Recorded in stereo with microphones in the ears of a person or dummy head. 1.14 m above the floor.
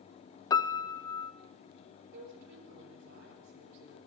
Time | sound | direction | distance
0.5 | a piano | 10° left (ahead or behind) | 0.5 m
2.1 | a woman speaking | 55° right (ahead or behind) | 6.5 m